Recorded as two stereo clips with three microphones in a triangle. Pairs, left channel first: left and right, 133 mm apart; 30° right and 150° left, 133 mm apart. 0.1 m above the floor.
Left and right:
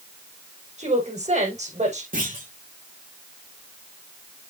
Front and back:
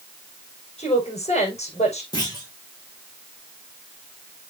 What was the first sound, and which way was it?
A woman speaking, 65° right.